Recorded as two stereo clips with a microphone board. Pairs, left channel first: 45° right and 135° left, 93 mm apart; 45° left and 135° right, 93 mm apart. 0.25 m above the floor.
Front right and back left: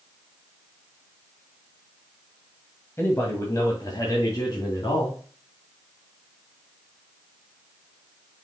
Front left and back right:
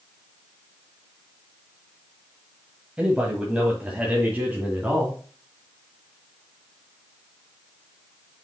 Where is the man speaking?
70° right, 1.5 m; by 5.2 s 60° right, 2.5 m.